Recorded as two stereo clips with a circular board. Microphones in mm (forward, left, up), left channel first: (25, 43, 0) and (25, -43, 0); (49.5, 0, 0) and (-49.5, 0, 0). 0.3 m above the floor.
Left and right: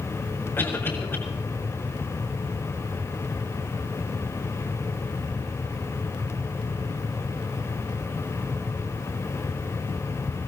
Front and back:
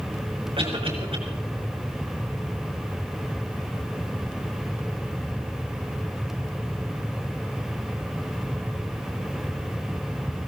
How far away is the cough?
About 4.5 m.